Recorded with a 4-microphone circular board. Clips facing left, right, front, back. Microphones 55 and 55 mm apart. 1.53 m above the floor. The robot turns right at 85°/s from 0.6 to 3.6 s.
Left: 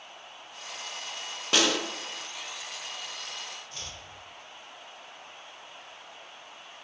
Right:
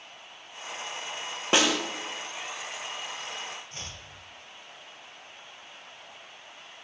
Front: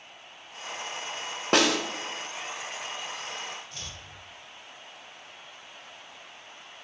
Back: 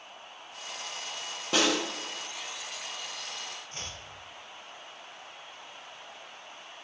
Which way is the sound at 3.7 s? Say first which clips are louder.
Even, back 1 dB; 135° right.